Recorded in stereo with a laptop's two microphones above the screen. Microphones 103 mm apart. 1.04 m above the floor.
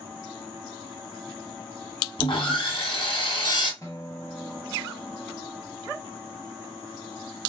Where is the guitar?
30° left (ahead or behind), 1.1 m.